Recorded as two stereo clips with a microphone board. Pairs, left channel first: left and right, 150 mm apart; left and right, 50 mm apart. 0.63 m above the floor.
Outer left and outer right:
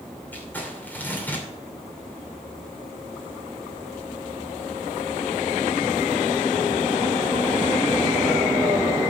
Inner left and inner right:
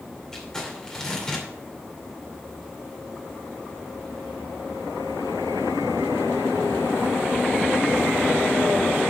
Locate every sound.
0.3 s crumpling: 15° left (ahead or behind), 2.5 m